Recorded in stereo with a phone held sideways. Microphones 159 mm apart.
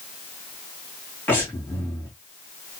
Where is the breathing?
15° left (ahead or behind), 2 m.